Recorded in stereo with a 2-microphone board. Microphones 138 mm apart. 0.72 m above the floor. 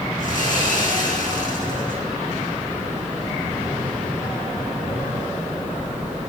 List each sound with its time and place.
0.2 s sawing: 70° left (ahead or behind), 8.5 m